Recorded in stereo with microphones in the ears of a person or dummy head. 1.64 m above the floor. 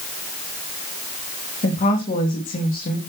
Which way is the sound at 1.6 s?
40° left (ahead or behind).